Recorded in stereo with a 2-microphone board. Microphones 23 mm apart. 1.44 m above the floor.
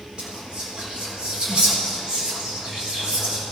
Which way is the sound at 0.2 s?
35° right (ahead or behind).